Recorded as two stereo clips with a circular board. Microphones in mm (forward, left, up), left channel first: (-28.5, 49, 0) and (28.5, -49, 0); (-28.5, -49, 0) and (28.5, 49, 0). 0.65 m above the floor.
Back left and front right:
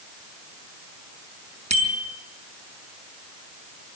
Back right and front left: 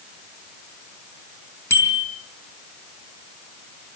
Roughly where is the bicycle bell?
Ahead right.